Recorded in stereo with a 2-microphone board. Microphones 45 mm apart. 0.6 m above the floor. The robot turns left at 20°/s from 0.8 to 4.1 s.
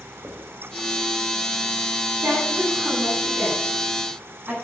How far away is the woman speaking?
About 6 m.